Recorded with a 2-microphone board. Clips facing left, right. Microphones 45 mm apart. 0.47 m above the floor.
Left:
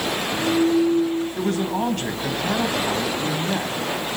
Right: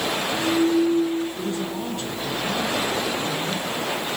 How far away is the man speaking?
About 4 m.